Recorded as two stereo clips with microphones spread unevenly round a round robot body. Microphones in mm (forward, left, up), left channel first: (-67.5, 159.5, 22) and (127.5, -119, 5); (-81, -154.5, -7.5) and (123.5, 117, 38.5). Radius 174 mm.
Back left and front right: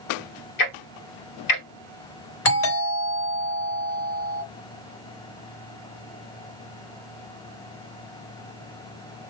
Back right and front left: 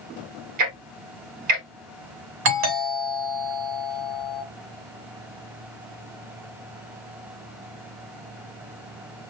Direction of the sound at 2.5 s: 85° left.